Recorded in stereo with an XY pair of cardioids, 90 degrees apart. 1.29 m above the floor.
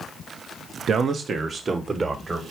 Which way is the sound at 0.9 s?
60° right.